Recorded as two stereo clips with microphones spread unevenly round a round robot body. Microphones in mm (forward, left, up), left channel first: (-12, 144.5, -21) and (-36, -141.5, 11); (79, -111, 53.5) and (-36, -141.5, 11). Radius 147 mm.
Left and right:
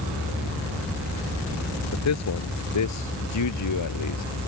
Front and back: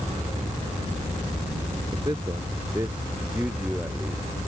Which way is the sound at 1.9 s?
120° left.